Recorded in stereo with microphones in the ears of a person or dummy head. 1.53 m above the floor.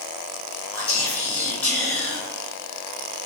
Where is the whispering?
10° left (ahead or behind), 1.9 m.